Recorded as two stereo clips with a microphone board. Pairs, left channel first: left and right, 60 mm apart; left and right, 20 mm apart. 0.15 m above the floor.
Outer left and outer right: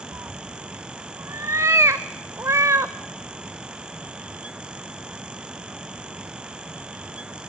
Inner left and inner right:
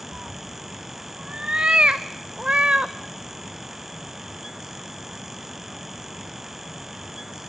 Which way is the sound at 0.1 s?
50° right (ahead or behind).